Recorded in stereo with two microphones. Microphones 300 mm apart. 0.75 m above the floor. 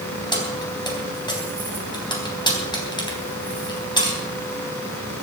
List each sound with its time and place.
0.3 s keys jangling: 15° left (ahead or behind), 3.5 m